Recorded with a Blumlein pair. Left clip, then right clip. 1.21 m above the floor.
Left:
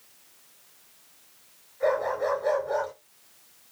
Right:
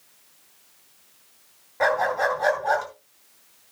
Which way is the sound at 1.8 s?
45° right.